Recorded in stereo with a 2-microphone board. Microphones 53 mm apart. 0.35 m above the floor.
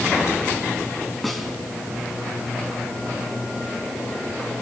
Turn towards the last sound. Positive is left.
turn(degrees=5)  # may be behind; listen again after turning